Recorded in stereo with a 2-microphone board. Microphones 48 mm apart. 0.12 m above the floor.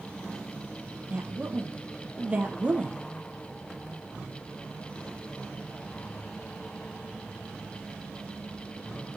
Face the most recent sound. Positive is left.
turn(degrees=-25)  # may be behind; listen again after turning